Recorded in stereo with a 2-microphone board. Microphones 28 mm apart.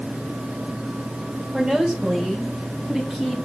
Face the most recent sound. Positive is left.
turn(degrees=-10)  # may be behind; listen again after turning